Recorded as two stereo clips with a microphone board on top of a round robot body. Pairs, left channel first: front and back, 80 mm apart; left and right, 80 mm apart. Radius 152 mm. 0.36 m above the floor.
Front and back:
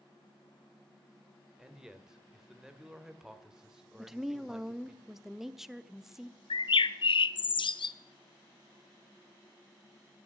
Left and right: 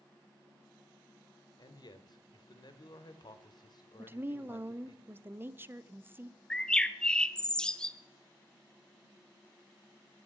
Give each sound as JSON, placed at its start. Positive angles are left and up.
{"t": 1.6, "sound": "a man speaking", "azimuth_deg": 100, "distance_m": 2.0}
{"t": 4.0, "sound": "a woman speaking", "azimuth_deg": -100, "distance_m": 1.1}
{"t": 6.5, "sound": "a bird", "azimuth_deg": 10, "distance_m": 0.8}